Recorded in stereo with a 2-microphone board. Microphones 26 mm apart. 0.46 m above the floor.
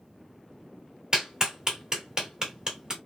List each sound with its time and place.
1.1 s a clap: 30° right (ahead or behind), 1.2 m